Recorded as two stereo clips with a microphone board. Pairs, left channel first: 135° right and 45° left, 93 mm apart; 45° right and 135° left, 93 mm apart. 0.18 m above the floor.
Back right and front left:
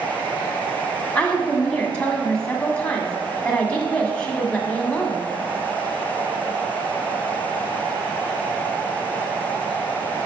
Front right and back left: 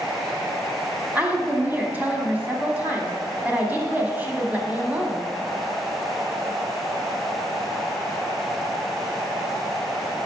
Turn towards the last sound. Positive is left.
turn(degrees=170)